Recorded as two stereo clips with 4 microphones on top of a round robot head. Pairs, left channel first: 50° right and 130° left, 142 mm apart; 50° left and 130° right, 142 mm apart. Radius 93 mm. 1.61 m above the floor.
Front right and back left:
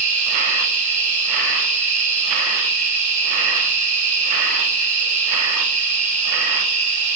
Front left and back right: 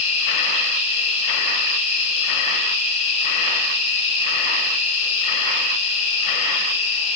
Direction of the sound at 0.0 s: 95° left.